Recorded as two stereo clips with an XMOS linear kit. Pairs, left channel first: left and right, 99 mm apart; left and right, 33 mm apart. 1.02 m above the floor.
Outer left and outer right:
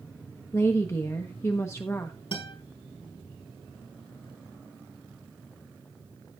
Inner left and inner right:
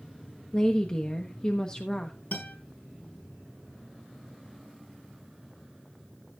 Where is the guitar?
60° left (ahead or behind), 4.5 m.